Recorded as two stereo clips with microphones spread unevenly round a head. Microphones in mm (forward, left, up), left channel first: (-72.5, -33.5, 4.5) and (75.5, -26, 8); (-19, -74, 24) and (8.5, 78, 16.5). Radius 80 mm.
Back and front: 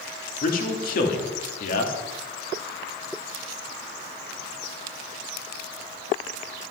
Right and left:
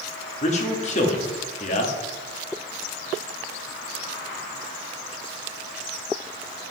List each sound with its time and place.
0.4 s a man speaking: 150° right, 1.8 m